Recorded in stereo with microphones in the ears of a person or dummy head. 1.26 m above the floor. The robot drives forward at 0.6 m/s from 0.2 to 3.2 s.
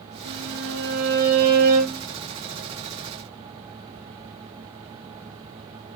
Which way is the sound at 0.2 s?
75° right (ahead or behind).